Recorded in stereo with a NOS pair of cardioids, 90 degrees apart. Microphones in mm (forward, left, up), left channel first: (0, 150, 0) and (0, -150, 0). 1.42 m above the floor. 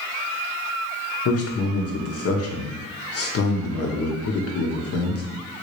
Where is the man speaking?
55° left, 0.9 m.